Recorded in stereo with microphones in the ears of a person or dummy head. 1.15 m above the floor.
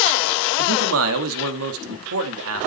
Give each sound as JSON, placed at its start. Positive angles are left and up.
{"t": 0.6, "sound": "a man speaking", "side_deg": -80, "distance_m": 1.8}